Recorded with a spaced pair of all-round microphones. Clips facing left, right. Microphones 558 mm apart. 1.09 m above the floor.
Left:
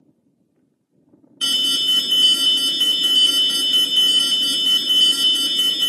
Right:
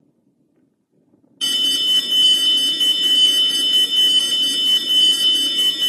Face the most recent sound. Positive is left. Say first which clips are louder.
# even
turn(degrees=5)  # may be behind; listen again after turning